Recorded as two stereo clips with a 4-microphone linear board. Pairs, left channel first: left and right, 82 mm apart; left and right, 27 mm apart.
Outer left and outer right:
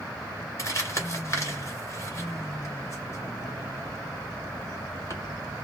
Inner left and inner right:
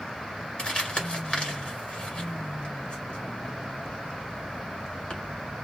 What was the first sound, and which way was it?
Crumpling, 40° left (ahead or behind).